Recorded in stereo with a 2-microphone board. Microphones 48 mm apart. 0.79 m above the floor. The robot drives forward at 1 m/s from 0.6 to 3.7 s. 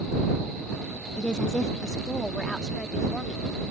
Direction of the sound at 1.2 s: 20° left (ahead or behind).